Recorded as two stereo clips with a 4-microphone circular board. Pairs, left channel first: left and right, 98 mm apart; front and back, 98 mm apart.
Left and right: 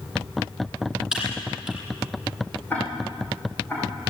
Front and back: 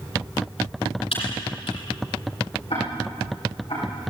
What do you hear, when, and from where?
1.1 s typing on a keyboard: 10° right, 8 m
2.7 s ticking: 15° left, 9.5 m